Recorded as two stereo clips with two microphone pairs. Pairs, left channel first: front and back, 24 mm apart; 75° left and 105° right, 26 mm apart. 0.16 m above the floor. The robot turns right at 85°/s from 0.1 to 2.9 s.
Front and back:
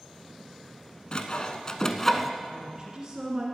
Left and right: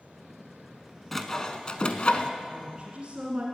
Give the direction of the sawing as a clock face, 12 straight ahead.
12 o'clock.